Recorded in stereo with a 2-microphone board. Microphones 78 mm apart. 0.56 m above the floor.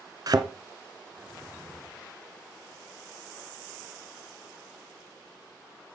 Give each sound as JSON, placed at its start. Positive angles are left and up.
{"t": 0.3, "sound": "a thud", "side_deg": -55, "distance_m": 0.8}